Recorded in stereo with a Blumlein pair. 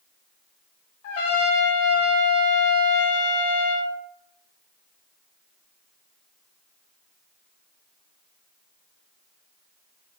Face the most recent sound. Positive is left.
turn(degrees=50)